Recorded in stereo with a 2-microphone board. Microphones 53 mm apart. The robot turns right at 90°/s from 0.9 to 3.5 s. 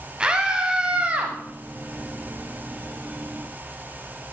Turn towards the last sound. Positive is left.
turn(degrees=90)